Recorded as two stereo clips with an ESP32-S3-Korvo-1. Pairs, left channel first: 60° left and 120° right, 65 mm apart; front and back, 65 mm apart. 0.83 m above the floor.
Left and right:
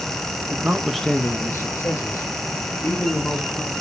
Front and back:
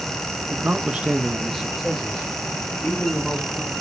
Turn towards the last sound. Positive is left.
turn(degrees=75)